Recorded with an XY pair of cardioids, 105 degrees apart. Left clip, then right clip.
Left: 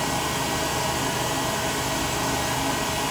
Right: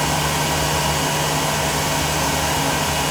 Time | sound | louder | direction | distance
0.0 | a fan | right 5 dB | 55° right | 1.2 m